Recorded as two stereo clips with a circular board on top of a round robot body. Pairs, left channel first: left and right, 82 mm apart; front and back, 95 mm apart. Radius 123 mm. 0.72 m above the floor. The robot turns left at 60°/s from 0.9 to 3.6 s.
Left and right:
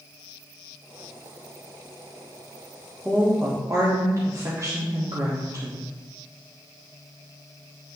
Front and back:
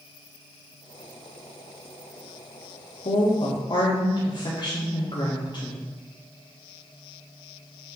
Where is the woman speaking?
5° right, 1.6 m; by 5.9 s 40° right, 1.6 m.